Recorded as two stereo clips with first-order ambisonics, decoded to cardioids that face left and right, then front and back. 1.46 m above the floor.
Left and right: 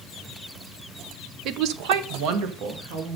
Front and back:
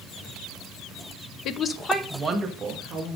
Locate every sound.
1.4 s a woman speaking: 45° right, 0.7 m; by 3.2 s 115° right, 2.5 m